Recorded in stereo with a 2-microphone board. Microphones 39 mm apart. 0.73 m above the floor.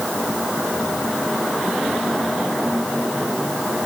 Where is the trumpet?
I don't hear a trumpet.